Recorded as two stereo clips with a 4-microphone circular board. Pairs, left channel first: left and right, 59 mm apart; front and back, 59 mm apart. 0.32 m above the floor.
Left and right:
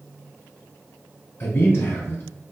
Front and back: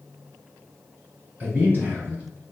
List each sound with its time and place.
1.4 s a man speaking: 130° left, 1.8 m